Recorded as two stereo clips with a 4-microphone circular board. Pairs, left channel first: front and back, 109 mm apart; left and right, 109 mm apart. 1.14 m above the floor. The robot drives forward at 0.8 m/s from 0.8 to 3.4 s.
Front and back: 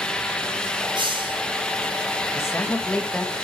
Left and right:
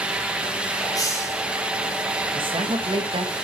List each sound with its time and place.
0.9 s a hiss: 145° left, 2.5 m; by 1.4 s 150° left, 3 m
2.4 s a man speaking: 60° right, 2 m; by 3.4 s 85° right, 1.8 m